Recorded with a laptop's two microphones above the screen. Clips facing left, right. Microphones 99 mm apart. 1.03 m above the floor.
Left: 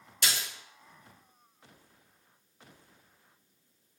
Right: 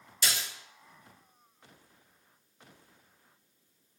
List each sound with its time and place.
0.2 s a splash: 60° left (ahead or behind), 1.2 m